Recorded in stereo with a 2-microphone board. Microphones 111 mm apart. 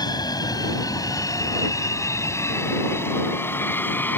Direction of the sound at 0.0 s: 40° left (ahead or behind).